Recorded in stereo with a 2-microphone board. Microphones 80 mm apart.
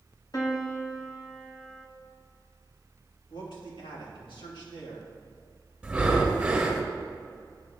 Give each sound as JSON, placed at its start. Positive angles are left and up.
{"t": 0.3, "sound": "a piano", "side_deg": 55, "distance_m": 1.4}
{"t": 3.3, "sound": "a man speaking", "side_deg": 85, "distance_m": 2.5}
{"t": 5.8, "sound": "breathing", "side_deg": -10, "distance_m": 1.9}